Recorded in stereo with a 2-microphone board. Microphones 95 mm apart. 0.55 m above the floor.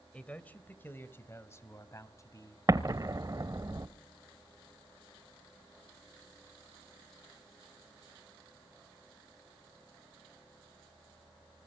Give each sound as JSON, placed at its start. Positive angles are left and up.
{"t": 0.1, "sound": "a man speaking", "side_deg": 15, "distance_m": 2.0}
{"t": 2.7, "sound": "an explosion", "side_deg": -40, "distance_m": 1.2}